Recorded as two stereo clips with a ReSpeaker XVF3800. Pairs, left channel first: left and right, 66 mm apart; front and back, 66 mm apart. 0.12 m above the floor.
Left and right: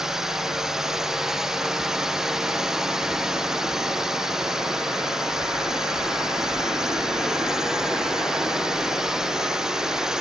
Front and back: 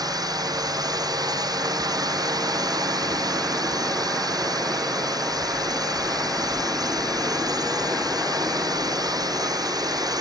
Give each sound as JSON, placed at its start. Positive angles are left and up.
{"t": 0.0, "sound": "a drone", "azimuth_deg": -175}